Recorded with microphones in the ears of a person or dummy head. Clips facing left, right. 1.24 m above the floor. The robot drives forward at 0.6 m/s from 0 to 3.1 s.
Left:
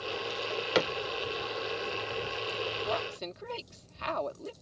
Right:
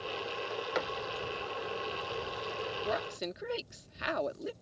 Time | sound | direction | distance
0.3 | a drawer | 50° left (ahead or behind) | ?
2.9 | a woman speaking | 10° right (ahead or behind) | ?